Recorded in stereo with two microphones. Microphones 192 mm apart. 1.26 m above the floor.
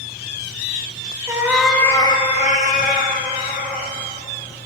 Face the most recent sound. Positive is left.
turn(degrees=50)  # may be behind; listen again after turning